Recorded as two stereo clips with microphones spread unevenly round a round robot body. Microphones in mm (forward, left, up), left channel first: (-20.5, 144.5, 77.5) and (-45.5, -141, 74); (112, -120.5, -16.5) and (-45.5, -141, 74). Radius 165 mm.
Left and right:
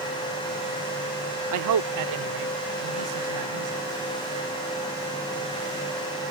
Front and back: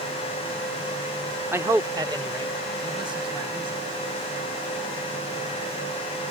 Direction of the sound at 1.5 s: 80° right.